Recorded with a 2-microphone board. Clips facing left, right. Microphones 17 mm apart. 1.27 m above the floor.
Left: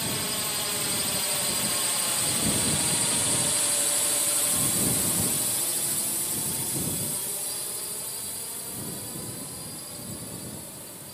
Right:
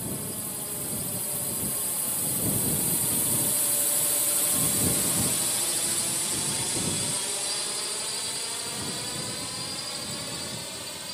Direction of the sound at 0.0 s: 60° left (ahead or behind).